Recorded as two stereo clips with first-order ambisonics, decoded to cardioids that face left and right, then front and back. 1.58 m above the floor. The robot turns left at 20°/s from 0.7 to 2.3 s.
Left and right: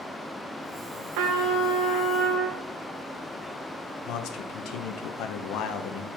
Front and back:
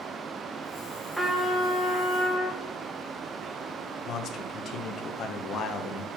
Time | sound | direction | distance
1.1 | a trumpet | 90° right | 1.5 m
4.0 | a man speaking | 55° left | 0.9 m